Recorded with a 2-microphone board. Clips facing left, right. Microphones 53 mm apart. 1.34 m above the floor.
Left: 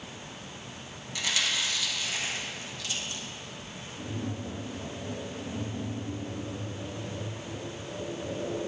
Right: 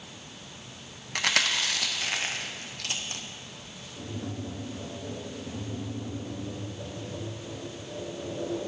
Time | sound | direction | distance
1.1 | chewing | 60° right (ahead or behind) | 0.7 m
4.0 | tapping | 40° right (ahead or behind) | 3.5 m